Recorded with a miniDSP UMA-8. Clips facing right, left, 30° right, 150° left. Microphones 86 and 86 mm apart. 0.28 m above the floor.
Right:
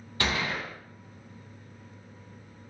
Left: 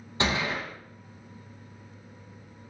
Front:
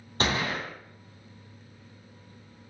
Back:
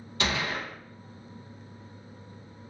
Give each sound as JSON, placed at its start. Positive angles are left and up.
{"t": 0.2, "sound": "a gunshot", "azimuth_deg": 20, "distance_m": 1.3}